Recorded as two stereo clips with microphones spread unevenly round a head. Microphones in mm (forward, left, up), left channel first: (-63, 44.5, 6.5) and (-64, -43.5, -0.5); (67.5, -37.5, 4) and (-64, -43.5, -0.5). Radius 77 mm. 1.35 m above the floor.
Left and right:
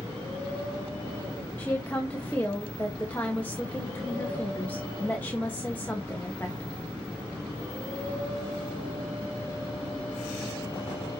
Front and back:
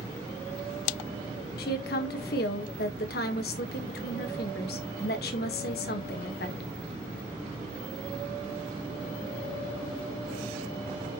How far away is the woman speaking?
About 1.4 m.